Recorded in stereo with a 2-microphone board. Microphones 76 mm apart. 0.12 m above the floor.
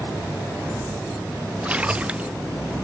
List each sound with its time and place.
1.6 s a splash: 15° right (ahead or behind)